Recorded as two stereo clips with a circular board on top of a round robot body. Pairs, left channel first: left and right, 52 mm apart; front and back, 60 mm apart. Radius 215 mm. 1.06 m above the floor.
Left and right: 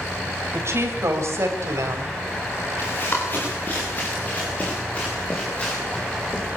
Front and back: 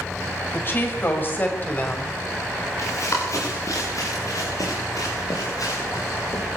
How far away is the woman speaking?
About 6.5 m.